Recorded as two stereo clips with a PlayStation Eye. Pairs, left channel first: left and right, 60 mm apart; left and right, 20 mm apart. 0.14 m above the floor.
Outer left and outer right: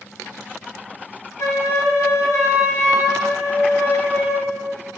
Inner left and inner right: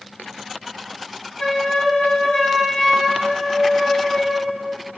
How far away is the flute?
About 0.7 m.